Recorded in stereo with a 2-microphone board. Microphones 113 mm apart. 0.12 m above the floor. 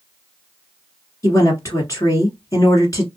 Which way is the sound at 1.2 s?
30° left (ahead or behind).